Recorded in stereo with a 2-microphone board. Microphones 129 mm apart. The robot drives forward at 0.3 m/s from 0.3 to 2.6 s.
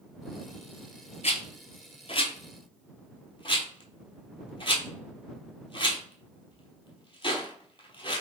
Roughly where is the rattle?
Left.